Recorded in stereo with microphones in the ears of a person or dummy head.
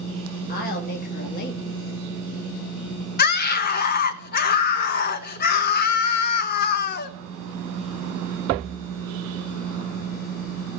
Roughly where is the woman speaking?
Left.